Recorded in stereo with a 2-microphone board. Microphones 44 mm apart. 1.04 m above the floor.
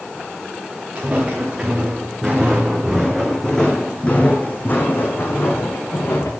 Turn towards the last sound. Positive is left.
turn(degrees=65)  # may be behind; listen again after turning